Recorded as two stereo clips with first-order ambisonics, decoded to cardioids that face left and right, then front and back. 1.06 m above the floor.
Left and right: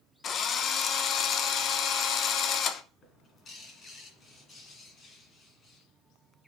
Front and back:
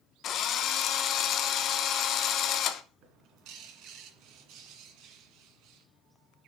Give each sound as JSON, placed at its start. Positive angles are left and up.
{"t": 0.2, "sound": "a drill", "azimuth_deg": 40, "distance_m": 0.7}
{"t": 3.0, "sound": "a bird", "azimuth_deg": 155, "distance_m": 1.9}